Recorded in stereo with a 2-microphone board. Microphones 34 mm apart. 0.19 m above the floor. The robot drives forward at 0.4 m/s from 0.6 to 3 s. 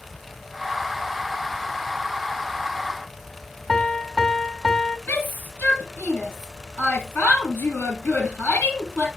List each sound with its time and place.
3.7 s a piano: 10° left (ahead or behind), 0.6 m
5.1 s a shout: 70° left (ahead or behind), 4.5 m